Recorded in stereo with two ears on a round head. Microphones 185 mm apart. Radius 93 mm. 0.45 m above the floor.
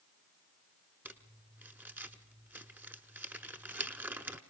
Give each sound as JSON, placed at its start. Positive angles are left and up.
{"t": 1.1, "sound": "crumpling", "side_deg": -10, "distance_m": 0.9}